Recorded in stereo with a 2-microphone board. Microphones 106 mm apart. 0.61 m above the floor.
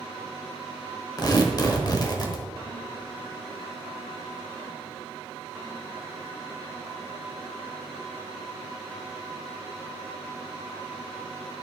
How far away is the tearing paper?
About 1.0 m.